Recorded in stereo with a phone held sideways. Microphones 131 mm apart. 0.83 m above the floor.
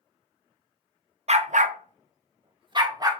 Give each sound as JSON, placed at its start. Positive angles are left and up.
{"t": 1.3, "sound": "a dog barking", "side_deg": -55, "distance_m": 0.5}